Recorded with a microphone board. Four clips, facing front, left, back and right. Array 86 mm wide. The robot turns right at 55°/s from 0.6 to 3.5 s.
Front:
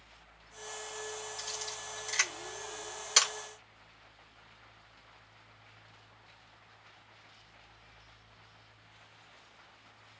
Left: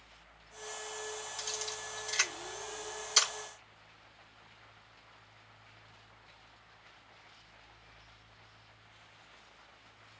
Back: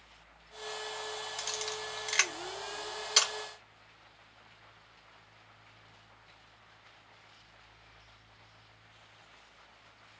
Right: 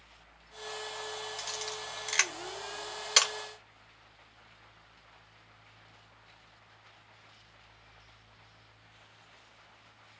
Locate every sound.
1.4 s a camera shutter: 175° right, 1.2 m; by 3.3 s 70° right, 1.2 m